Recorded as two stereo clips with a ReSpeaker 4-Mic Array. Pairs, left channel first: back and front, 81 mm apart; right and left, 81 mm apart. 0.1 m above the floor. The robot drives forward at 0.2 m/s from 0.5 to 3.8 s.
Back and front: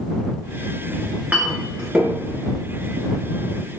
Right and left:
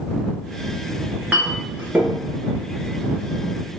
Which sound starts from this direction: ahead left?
A clink, at 1.0 s.